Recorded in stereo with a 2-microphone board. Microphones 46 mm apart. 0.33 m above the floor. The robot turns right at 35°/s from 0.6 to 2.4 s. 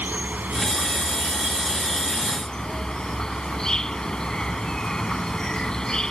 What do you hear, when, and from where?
0.0 s an insect: 45° right; by 6.1 s 15° left